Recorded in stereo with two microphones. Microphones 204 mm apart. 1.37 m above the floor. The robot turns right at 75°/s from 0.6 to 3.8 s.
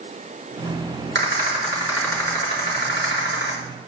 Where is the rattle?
65° right, 4 m; by 3.5 s 115° left, 4 m.